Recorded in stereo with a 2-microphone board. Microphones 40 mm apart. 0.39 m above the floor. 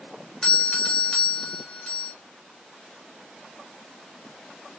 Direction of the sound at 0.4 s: 20° left (ahead or behind).